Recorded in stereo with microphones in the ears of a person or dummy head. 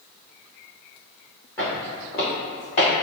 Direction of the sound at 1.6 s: 10° left (ahead or behind).